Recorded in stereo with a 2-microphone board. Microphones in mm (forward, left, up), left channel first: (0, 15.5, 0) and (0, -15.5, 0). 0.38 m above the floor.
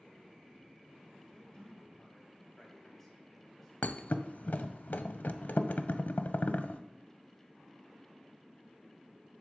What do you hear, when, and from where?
1.3 s a man speaking: 30° left (ahead or behind), 2.0 m; by 4.7 s centre (ahead or behind), 3.5 m
3.8 s a thud: 75° left (ahead or behind), 0.5 m